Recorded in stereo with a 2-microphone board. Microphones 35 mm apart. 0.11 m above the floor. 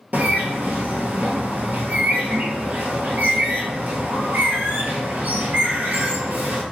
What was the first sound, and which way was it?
A bird, 55° right (ahead or behind).